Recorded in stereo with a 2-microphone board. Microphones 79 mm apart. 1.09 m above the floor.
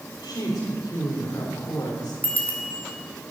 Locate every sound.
0.2 s a woman speaking: 55° left (ahead or behind), 4 m
2.2 s a bicycle bell: 20° left (ahead or behind), 3.5 m